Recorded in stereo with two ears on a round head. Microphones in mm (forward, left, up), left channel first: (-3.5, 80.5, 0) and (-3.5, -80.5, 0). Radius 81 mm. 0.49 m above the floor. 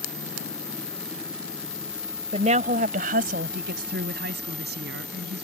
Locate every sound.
2.3 s a woman speaking: 35° right (ahead or behind); by 5.5 s 70° right (ahead or behind)